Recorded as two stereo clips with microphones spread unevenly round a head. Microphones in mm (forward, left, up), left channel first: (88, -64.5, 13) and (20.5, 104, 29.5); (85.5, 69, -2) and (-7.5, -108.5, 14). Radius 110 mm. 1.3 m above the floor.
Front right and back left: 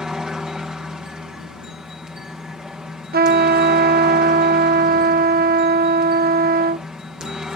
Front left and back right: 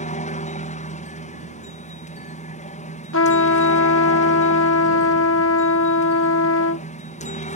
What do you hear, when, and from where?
0.0 s a helicopter: 25° left
3.1 s a trumpet: 80° left